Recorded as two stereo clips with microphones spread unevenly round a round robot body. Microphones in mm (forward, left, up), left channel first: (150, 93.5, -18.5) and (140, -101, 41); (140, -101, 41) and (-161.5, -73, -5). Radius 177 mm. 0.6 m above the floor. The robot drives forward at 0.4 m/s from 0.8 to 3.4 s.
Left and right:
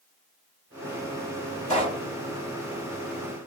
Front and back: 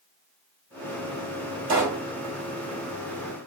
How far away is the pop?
About 2 m.